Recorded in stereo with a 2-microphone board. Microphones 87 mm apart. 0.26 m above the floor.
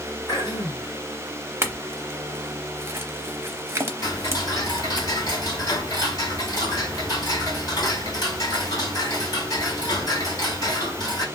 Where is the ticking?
45° left (ahead or behind), 2 m.